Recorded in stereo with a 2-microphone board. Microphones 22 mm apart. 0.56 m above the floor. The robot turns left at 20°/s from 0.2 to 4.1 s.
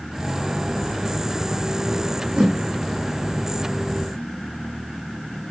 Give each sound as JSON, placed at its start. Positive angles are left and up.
{"t": 2.4, "sound": "a whoosh", "side_deg": -50, "distance_m": 0.8}